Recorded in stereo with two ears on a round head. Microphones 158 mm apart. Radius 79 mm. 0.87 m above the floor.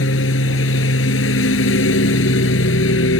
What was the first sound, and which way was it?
A lawn mower, 85° left.